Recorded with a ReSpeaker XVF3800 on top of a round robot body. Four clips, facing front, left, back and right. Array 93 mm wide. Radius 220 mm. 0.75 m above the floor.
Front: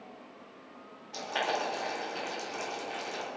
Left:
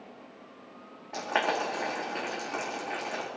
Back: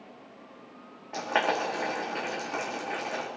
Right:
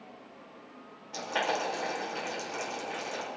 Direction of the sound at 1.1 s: 140° left.